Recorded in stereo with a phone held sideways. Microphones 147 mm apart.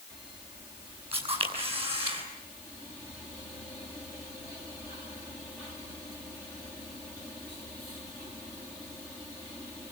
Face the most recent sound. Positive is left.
turn(degrees=-40)  # may be behind; listen again after turning